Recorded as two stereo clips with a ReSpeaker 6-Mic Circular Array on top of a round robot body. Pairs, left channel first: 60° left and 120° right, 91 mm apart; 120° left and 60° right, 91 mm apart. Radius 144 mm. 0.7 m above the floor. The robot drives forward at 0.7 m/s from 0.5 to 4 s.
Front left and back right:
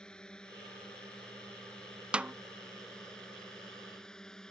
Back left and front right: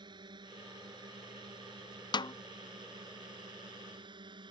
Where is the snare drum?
160° left; by 2.3 s 165° left.